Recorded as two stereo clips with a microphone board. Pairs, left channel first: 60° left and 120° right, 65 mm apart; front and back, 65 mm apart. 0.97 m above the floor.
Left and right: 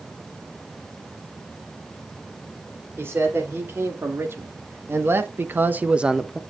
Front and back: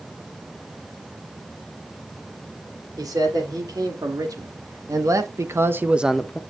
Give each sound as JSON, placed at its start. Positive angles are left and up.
{"t": 3.0, "sound": "a man speaking", "azimuth_deg": -170, "distance_m": 3.5}